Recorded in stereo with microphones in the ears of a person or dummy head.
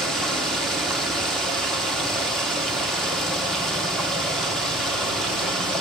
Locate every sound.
0.0 s running water: centre (ahead or behind), 1.0 m